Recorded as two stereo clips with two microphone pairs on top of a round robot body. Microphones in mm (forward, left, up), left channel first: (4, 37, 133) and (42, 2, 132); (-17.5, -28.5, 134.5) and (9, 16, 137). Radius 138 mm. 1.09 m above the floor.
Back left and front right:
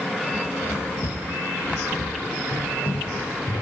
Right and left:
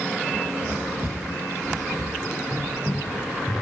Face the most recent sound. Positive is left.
turn(degrees=155)